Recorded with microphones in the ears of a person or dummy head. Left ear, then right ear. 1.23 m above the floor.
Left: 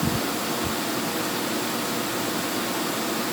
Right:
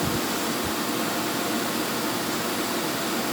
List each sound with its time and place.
Only background noise.